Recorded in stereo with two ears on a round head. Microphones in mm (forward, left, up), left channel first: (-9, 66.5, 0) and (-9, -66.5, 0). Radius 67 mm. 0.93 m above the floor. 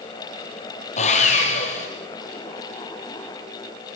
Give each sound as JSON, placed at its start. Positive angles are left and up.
{"t": 1.0, "sound": "sawing", "side_deg": 50, "distance_m": 5.5}